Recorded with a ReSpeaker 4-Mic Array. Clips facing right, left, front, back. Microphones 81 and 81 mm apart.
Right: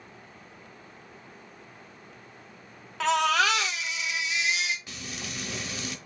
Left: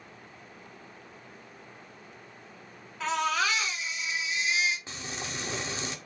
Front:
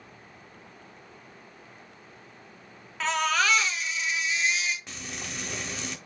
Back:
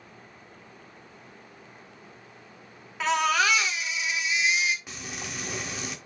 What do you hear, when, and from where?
3.0 s a baby crying: 95° right, 1.2 m
4.9 s frying: 100° left, 1.0 m